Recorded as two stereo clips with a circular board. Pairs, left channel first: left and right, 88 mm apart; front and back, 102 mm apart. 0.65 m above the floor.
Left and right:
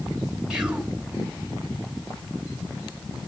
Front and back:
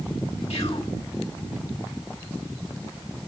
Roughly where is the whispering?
Ahead.